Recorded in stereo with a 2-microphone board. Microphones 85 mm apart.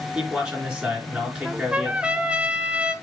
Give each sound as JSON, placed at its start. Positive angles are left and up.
{"t": 0.1, "sound": "a man speaking", "side_deg": -15, "distance_m": 4.0}
{"t": 1.4, "sound": "a trumpet", "side_deg": -15, "distance_m": 0.9}